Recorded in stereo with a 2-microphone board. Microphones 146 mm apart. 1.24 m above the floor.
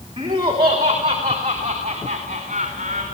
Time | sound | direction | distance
0.2 | laughter | 35° right (ahead or behind) | 2.5 m